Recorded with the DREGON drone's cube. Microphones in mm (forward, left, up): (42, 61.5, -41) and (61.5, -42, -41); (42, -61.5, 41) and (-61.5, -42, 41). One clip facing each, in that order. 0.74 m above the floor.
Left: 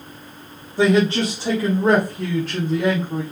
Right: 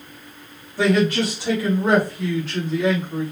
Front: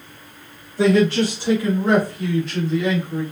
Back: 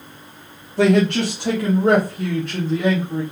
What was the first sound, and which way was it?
A man speaking, 165° left.